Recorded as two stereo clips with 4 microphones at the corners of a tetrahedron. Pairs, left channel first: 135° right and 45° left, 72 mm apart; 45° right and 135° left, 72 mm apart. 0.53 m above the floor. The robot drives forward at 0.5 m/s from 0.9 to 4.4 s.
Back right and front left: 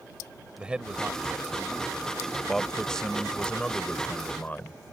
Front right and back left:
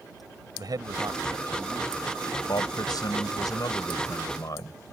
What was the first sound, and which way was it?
A man speaking, 120° left.